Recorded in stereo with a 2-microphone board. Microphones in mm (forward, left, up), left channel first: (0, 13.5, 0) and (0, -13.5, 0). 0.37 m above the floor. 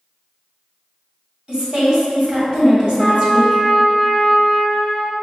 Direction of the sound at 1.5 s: 35° right (ahead or behind).